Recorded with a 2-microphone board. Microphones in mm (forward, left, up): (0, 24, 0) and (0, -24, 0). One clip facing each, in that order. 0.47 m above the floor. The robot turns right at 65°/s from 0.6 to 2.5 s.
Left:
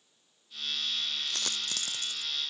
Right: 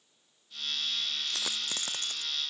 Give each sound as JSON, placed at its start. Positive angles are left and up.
{"t": 1.3, "sound": "a dropped coin", "side_deg": 5}